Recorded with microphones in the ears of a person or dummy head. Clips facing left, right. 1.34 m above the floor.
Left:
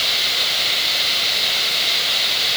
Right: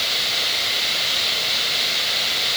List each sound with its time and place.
Only background noise.